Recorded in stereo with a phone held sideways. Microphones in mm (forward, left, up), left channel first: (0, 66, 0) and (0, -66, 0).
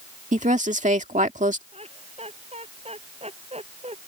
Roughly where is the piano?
I don't hear a piano.